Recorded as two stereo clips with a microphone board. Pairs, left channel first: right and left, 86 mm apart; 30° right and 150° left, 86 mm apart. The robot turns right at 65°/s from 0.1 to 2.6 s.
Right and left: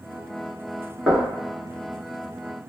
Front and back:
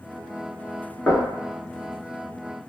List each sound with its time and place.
1.1 s knocking: 10° left, 0.8 m; by 1.4 s 30° left, 0.8 m